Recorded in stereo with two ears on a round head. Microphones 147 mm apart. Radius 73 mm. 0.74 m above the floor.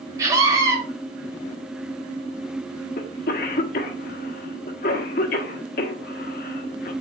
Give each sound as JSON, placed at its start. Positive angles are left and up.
{"t": 0.2, "sound": "a scream", "side_deg": -20, "distance_m": 3.0}
{"t": 3.0, "sound": "a cough", "side_deg": 55, "distance_m": 1.2}